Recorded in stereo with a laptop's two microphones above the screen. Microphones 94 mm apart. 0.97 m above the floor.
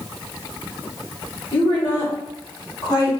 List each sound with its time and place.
1.5 s a woman speaking: 20° left (ahead or behind), 3.5 m; by 3.1 s 40° left (ahead or behind), 3.5 m